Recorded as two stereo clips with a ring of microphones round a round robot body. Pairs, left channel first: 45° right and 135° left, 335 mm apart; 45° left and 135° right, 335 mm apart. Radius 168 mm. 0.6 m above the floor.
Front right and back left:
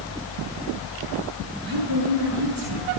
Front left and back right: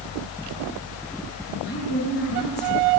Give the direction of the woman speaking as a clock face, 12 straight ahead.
8 o'clock.